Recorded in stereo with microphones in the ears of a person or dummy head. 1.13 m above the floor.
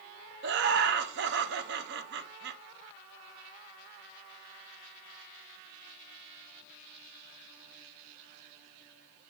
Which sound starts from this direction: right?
Laughter, at 0.4 s.